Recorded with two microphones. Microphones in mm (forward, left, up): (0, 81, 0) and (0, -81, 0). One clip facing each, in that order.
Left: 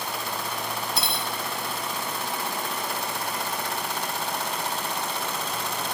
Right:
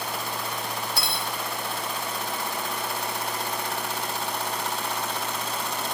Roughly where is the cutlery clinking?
Left.